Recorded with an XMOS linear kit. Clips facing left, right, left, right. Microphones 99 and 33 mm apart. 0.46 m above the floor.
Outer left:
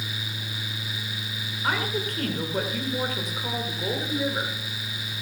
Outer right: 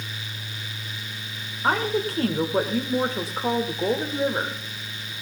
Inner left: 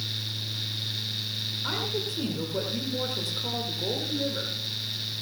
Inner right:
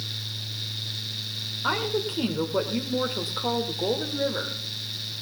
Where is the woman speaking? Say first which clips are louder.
Outer right 5 dB, inner right 6 dB; 30° right (ahead or behind), 1.3 m.